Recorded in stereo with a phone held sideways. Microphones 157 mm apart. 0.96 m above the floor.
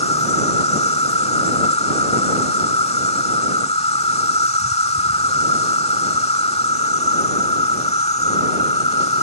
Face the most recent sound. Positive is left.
turn(degrees=40)  # may be behind; listen again after turning